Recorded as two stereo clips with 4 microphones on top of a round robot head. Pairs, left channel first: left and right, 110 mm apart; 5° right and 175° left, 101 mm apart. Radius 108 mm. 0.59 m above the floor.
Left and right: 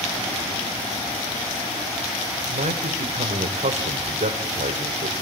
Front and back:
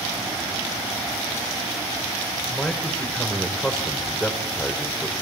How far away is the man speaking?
About 2.5 m.